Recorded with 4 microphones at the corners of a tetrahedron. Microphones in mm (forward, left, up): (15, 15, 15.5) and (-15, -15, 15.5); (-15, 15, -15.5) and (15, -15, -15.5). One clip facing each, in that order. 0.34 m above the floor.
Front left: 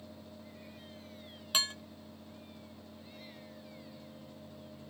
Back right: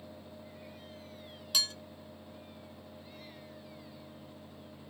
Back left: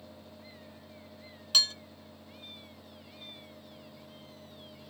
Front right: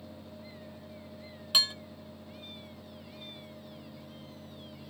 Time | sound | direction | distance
1.5 | dishes clattering | 15° left | 0.7 m